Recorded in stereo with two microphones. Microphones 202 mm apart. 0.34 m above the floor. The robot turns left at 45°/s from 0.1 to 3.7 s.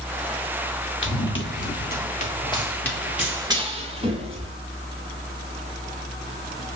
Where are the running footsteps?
80° left, 1.7 m; by 4.5 s 25° right (ahead or behind), 3.5 m.